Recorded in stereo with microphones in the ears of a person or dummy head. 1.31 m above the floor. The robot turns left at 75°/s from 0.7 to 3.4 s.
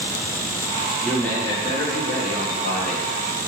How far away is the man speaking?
About 1.7 m.